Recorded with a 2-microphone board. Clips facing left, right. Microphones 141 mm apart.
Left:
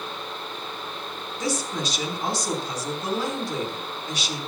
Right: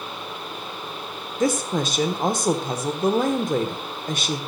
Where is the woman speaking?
50° right (ahead or behind), 1.1 m.